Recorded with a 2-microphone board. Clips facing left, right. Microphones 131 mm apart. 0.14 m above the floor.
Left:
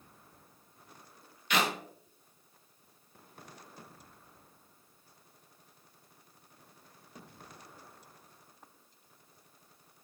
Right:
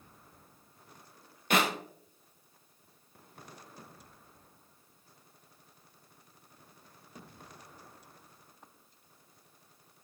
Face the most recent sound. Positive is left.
turn(degrees=-45)  # may be behind; listen again after turning